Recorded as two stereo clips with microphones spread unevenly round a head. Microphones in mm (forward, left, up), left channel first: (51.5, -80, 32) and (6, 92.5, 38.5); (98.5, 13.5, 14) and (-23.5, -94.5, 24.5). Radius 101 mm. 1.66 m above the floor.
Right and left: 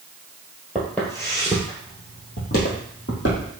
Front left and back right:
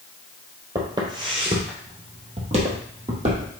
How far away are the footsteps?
About 1.8 m.